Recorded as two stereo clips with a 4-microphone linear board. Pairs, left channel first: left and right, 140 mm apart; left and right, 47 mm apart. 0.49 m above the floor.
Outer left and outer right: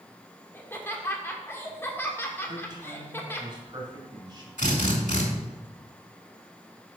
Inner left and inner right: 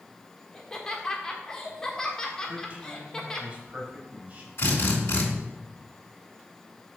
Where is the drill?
60° left (ahead or behind), 2.5 m.